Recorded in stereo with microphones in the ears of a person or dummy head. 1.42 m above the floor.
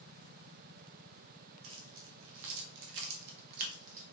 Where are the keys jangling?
80° right, 2 m; by 4.0 s 40° right (ahead or behind), 1.7 m.